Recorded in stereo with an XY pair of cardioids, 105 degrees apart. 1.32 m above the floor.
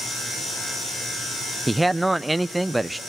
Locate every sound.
1.7 s a man speaking: 10° right, 0.6 m